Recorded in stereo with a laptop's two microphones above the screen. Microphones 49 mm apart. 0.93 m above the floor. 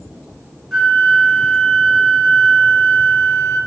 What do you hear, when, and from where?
0.7 s a flute: 5° right (ahead or behind), 0.6 m